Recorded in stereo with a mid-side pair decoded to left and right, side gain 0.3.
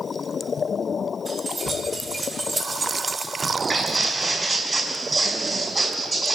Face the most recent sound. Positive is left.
turn(degrees=-50)